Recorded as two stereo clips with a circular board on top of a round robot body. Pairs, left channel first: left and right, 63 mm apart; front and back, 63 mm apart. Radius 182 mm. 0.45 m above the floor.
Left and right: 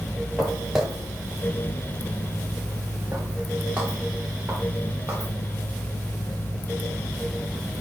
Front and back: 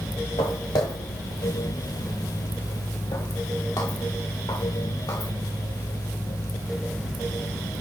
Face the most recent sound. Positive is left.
turn(degrees=-20)